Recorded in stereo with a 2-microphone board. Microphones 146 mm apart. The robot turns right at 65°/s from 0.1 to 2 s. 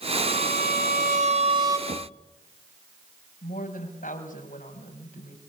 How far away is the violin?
About 4 m.